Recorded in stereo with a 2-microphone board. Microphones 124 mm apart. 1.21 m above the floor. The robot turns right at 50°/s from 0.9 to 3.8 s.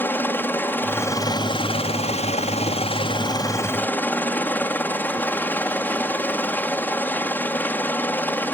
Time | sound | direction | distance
0.0 | a helicopter | 20° left | ?